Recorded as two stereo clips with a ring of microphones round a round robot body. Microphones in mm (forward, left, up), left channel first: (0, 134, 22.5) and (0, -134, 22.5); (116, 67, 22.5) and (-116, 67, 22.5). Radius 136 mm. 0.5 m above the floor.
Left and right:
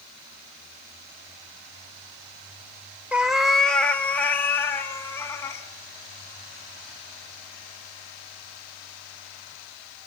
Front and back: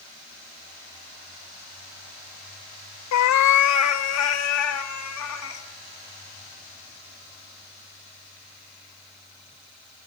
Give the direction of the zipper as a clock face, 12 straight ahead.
I don't hear a zipper.